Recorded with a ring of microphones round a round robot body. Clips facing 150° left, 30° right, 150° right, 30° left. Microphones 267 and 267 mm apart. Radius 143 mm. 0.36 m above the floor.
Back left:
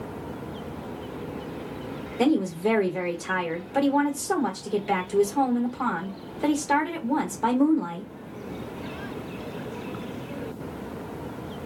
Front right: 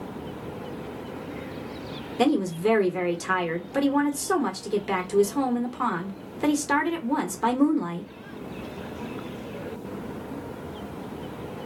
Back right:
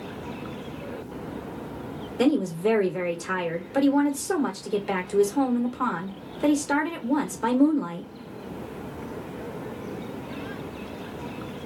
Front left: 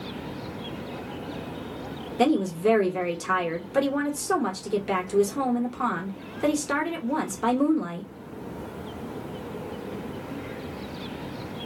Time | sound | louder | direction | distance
2.2 | a woman speaking | even, even | 55° right | 0.9 m